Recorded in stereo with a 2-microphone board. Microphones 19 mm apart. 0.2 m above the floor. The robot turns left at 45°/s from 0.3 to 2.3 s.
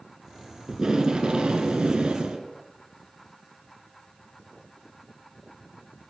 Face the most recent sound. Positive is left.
turn(degrees=-110)